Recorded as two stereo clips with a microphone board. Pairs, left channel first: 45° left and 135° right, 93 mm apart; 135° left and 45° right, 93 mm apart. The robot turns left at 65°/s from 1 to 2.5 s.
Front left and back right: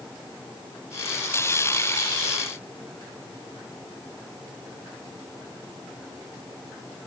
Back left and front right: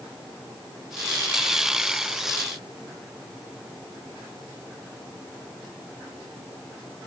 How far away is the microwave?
I don't hear a microwave.